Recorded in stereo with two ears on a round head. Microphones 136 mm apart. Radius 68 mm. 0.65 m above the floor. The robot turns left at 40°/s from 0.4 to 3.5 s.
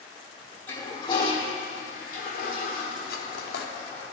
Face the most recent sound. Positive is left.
turn(degrees=75)  # may be behind; listen again after turning